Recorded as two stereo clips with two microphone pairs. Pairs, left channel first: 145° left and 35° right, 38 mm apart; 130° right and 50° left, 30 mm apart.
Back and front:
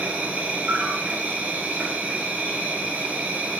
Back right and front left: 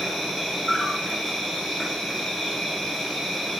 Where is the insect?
45° right, 1.2 m.